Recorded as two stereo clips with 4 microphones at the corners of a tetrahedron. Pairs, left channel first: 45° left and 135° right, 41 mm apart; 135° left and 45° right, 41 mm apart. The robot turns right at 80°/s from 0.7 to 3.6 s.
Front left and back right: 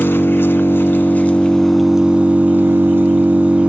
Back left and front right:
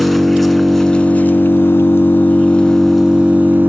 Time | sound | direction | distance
0.0 | an engine running | 45° left | 1.0 m